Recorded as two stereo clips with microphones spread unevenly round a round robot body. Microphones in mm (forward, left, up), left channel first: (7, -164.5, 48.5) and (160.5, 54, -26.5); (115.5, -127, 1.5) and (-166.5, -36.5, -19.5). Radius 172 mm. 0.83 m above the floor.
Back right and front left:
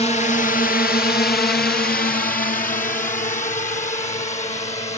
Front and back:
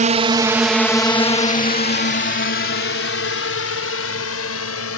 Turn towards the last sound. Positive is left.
turn(degrees=-55)